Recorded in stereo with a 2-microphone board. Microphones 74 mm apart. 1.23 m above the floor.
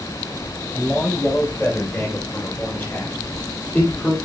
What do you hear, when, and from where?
0.7 s a man speaking: 25° left (ahead or behind), 6 m